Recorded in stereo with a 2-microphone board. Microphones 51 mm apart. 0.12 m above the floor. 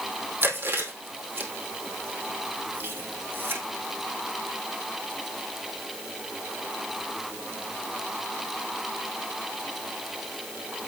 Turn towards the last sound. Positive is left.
turn(degrees=-45)  # may be behind; listen again after turning